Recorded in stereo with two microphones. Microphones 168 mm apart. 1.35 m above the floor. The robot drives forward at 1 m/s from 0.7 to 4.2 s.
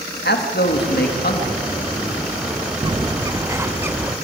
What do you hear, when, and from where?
0.2 s a man speaking: 80° left, 2 m; by 2.7 s 40° left (ahead or behind), 3 m
2.8 s a bird: 30° right (ahead or behind), 0.6 m; by 4.1 s 10° right (ahead or behind), 1.6 m